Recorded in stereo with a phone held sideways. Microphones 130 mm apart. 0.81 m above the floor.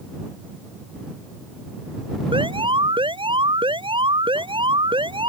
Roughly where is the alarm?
Right.